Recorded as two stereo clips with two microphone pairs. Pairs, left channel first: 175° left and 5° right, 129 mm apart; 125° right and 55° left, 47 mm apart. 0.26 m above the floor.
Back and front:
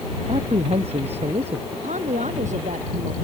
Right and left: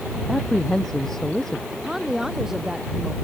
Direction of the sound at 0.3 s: 40° right.